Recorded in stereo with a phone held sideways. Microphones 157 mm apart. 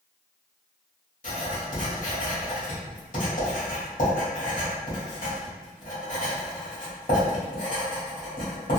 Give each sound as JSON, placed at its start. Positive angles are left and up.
{"t": 1.2, "sound": "writing", "side_deg": 60, "distance_m": 1.6}